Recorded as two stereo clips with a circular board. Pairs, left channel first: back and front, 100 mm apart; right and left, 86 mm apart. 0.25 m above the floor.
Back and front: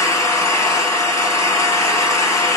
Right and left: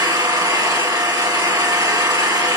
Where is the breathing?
I don't hear breathing.